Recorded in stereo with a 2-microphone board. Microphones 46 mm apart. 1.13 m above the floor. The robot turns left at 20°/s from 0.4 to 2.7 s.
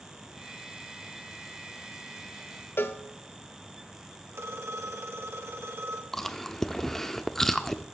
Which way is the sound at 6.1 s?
10° left (ahead or behind).